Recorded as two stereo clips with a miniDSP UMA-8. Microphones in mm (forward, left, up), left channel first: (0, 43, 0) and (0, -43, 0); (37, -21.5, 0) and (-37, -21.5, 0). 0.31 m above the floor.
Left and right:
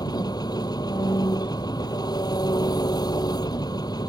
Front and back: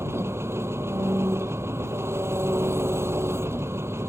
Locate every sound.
0.0 s an engine running: 125° left